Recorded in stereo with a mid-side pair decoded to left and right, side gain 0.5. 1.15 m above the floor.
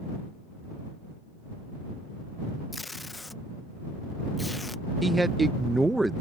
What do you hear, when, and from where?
2.7 s tape being pulled: 15° left
5.0 s a man speaking: 15° right